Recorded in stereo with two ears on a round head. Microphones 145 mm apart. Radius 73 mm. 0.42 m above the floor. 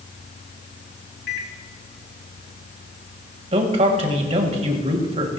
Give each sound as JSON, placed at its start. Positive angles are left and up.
{"t": 1.3, "sound": "a microwave", "side_deg": 60, "distance_m": 2.0}
{"t": 3.5, "sound": "a man speaking", "side_deg": -40, "distance_m": 2.0}